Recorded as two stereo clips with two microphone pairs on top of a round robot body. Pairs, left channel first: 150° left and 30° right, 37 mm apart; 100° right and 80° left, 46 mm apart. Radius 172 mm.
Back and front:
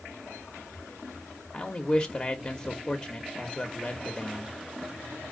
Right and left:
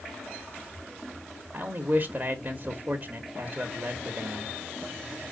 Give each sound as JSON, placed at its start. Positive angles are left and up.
{"t": 1.5, "sound": "a man speaking", "azimuth_deg": 95, "distance_m": 1.2}